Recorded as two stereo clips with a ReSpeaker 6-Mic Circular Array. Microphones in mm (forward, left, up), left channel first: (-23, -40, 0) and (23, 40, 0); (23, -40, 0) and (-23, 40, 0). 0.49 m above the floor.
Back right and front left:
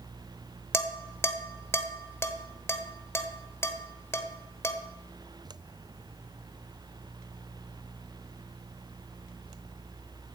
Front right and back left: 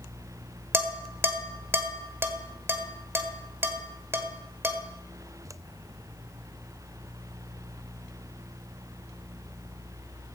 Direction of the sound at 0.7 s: 175° right.